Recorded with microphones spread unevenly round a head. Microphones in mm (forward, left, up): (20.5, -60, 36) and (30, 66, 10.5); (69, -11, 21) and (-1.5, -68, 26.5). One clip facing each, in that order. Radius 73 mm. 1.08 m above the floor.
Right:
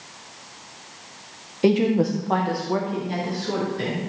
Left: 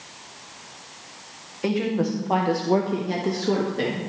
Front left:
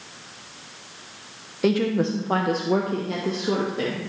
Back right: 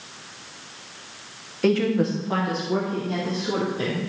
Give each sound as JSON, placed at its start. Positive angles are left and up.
{"t": 1.6, "sound": "a woman speaking", "azimuth_deg": -35, "distance_m": 1.0}